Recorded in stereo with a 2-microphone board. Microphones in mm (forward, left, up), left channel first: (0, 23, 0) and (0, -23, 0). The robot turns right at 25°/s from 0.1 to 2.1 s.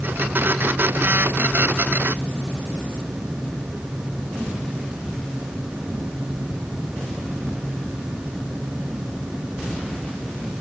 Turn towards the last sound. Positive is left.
No sound to turn to.